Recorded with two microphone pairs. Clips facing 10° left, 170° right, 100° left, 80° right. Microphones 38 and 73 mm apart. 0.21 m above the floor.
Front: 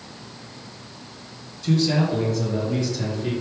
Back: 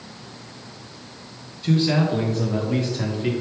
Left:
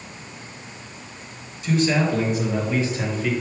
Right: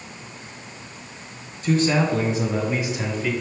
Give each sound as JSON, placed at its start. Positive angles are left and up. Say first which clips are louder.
{"t": 1.6, "sound": "a man speaking", "louder": "back 1 dB, right 1 dB", "azimuth_deg": -110, "distance_m": 2.5}